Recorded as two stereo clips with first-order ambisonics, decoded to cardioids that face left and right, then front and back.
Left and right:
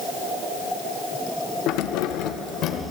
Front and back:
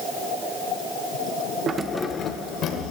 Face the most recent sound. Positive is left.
turn(degrees=40)